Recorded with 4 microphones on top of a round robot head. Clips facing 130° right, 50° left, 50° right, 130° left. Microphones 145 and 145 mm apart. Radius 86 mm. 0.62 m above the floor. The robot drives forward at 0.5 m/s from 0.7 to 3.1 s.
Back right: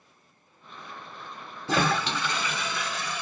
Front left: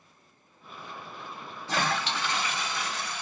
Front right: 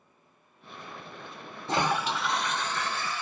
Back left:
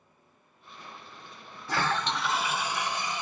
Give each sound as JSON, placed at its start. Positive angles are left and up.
{"t": 1.7, "sound": "a toilet flushing", "azimuth_deg": -115, "distance_m": 0.5}